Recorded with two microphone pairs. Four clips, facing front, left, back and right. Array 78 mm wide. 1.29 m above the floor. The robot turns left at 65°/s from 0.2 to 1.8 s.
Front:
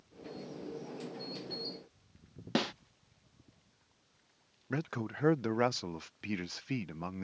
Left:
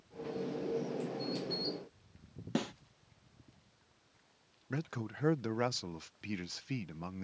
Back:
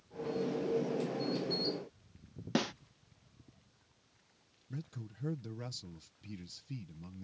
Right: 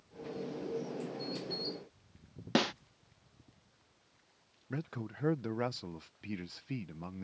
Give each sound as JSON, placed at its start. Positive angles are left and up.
{"t": 2.5, "sound": "a snare drum", "azimuth_deg": -80}
{"t": 4.7, "sound": "a man speaking", "azimuth_deg": 10}